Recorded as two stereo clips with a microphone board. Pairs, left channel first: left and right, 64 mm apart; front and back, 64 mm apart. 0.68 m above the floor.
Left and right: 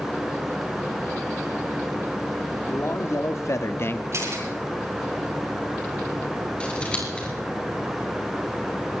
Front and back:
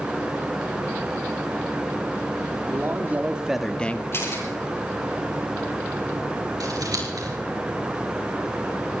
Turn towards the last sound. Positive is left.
turn(degrees=160)